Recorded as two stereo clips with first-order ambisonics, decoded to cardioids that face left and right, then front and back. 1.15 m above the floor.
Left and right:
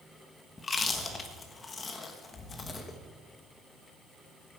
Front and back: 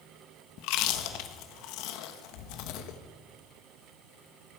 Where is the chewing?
20° left, 1.3 m.